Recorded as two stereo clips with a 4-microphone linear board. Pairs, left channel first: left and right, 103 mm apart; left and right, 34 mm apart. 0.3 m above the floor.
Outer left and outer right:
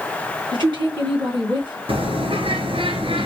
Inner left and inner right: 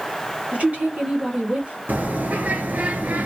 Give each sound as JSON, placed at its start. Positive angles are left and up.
{"t": 0.5, "sound": "a woman speaking", "side_deg": -50, "distance_m": 3.5}
{"t": 1.9, "sound": "a bird", "side_deg": -60, "distance_m": 1.6}